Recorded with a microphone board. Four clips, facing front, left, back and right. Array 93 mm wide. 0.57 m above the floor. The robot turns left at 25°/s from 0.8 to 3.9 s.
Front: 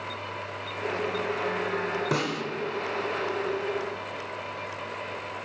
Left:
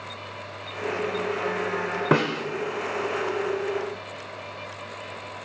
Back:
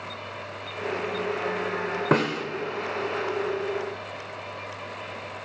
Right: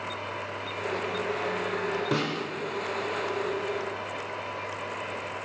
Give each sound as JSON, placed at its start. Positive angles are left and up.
{"t": 2.1, "sound": "a snare drum", "azimuth_deg": 125, "distance_m": 0.6}